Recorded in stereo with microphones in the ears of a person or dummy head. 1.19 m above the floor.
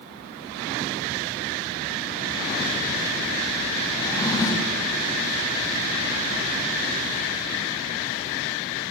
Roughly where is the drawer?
Centre.